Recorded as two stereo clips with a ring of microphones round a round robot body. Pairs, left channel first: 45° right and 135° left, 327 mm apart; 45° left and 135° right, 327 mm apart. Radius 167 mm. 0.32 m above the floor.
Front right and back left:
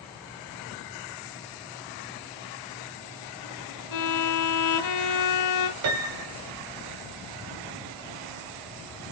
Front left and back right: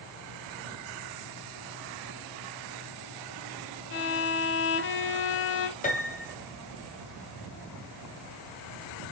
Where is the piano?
105° left, 2.5 m.